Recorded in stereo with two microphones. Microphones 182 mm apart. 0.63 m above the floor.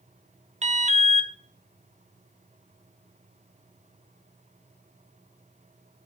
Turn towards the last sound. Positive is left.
turn(degrees=-40)  # may be behind; listen again after turning